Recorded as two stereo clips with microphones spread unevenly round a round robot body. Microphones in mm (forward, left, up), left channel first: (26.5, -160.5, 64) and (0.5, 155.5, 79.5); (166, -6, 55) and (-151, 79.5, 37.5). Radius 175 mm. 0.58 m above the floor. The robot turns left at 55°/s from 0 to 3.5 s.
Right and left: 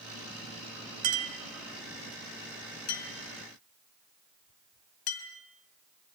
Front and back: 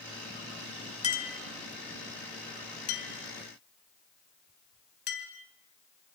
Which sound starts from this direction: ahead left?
A clink, at 1.0 s.